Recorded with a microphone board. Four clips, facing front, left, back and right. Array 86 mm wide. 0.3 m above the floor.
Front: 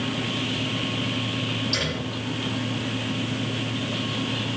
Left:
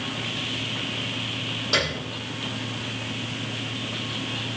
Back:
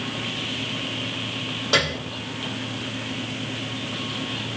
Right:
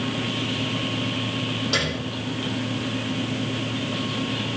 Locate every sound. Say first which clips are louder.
1.7 s a piano: left 3 dB, back 5 dB; straight behind, 6.5 m